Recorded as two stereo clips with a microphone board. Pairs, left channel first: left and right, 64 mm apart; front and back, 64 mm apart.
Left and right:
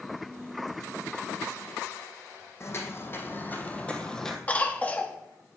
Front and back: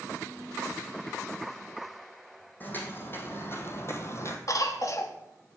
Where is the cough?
25° left, 1.2 m.